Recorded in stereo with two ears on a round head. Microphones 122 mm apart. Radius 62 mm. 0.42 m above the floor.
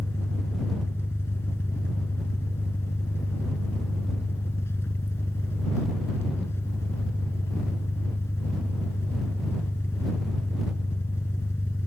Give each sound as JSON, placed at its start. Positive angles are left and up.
{"t": 0.0, "sound": "an engine running", "side_deg": 15}